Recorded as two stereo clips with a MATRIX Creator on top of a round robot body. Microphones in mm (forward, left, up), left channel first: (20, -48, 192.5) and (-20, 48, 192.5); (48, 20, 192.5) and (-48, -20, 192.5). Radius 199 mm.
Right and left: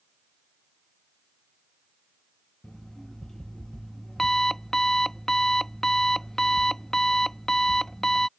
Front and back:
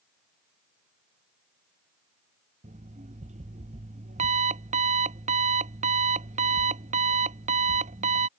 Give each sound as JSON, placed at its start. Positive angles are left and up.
{"t": 2.6, "sound": "an alarm clock", "azimuth_deg": -155}